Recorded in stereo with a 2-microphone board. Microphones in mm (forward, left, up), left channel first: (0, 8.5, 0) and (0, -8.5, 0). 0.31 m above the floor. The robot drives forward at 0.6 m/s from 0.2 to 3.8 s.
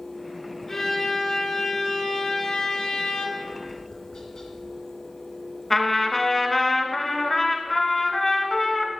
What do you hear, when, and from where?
0.7 s a violin: 30° left (ahead or behind), 2 m; by 3.3 s 65° left (ahead or behind), 1.1 m
3.4 s tapping: 60° left (ahead or behind), 1.6 m; by 4.7 s 55° left (ahead or behind), 1.7 m
5.7 s a trumpet: 20° left (ahead or behind), 1.0 m